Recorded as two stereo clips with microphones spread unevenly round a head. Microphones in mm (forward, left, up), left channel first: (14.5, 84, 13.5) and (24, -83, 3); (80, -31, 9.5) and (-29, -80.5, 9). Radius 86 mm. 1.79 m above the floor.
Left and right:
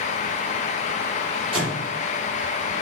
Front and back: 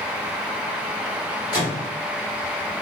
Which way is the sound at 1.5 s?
25° right.